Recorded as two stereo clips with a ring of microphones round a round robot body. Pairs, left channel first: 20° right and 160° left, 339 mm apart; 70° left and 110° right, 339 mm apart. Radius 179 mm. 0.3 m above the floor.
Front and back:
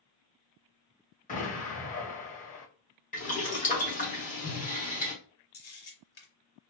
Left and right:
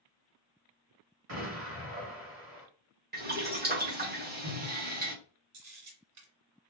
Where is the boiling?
75° right, 1.7 m.